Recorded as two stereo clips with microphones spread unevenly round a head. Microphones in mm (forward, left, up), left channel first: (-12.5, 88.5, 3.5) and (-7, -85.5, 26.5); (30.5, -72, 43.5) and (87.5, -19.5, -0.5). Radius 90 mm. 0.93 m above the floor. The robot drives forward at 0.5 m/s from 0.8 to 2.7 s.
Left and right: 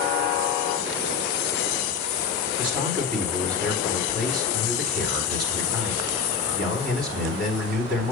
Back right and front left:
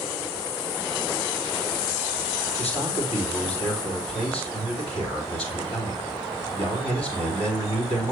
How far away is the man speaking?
About 2.5 m.